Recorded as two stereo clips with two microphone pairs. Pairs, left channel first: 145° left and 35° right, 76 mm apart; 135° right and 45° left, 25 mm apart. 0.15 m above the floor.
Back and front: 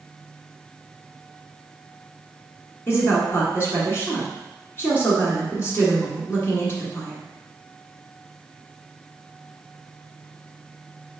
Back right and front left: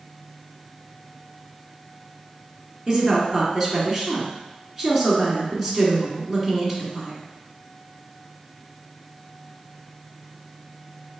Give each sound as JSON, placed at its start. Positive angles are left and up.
{"t": 2.9, "sound": "a woman speaking", "azimuth_deg": 125, "distance_m": 1.6}